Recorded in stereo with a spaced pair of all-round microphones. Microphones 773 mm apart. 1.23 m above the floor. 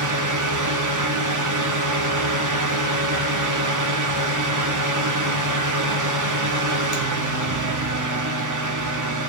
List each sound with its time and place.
0.0 s a fan: 25° right (ahead or behind), 0.7 m